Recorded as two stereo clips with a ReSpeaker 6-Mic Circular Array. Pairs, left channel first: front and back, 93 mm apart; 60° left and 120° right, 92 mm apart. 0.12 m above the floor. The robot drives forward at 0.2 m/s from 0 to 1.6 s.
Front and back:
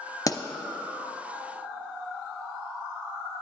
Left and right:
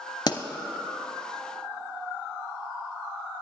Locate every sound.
0.3 s a pop: 40° left, 0.7 m